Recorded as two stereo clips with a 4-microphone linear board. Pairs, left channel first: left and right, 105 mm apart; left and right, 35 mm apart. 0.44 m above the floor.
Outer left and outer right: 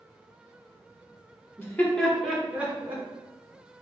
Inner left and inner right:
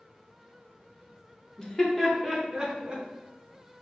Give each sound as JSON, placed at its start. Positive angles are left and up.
{"t": 1.6, "sound": "laughter", "side_deg": 20, "distance_m": 0.9}